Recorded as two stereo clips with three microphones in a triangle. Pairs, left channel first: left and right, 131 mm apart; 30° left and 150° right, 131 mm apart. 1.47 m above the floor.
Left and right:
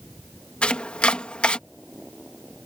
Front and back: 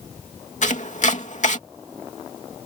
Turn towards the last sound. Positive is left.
turn(degrees=10)